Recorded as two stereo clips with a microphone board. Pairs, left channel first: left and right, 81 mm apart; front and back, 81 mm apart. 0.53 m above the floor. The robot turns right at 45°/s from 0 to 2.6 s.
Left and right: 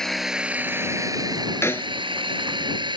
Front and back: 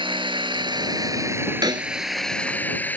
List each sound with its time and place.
0.0 s a drone: 175° left; by 3.0 s 70° right
1.6 s a snare drum: 145° left; by 1.9 s 160° left